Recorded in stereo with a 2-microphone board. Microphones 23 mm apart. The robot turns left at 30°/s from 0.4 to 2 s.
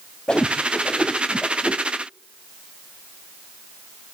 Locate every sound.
0.3 s a whoosh: 35° left (ahead or behind), 0.7 m; by 1.8 s 15° left (ahead or behind), 0.7 m